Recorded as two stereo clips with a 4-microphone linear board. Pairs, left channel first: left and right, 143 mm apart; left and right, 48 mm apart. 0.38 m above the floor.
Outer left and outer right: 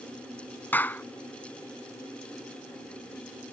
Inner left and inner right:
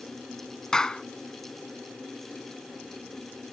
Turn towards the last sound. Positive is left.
turn(degrees=15)  # may be behind; listen again after turning